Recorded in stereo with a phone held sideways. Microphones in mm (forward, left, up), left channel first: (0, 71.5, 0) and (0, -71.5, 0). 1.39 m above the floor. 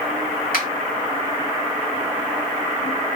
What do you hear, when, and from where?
0.5 s a finger snap: 70° left (ahead or behind), 1.8 m